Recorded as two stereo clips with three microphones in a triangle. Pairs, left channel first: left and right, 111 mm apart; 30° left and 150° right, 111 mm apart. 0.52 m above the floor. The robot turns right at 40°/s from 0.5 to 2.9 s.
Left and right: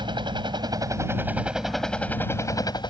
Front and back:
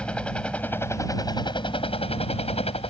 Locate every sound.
0.0 s a helicopter: 50° right; by 2.9 s 50° left